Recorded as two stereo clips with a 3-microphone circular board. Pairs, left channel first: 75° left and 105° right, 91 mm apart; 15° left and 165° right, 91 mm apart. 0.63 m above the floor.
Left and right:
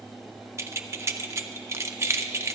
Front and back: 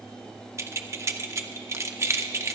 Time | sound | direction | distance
0.6 | keys jangling | 135° right | 0.6 m